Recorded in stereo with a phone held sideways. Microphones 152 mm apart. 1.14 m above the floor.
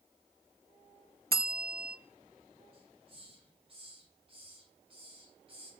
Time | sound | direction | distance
1.3 | a bell | 90° right | 0.7 m
2.7 | a hiss | 40° right (ahead or behind) | 4 m